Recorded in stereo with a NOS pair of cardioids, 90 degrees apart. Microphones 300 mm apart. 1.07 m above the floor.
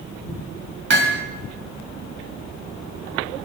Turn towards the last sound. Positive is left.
turn(degrees=-40)